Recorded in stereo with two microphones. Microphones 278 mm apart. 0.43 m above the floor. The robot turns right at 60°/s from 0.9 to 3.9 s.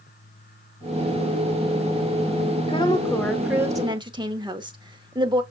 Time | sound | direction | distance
2.7 | a woman speaking | 140° left | 0.8 m